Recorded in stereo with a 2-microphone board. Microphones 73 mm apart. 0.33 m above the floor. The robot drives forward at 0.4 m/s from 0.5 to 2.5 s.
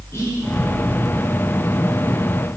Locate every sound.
0.1 s whispering: 35° left (ahead or behind), 4 m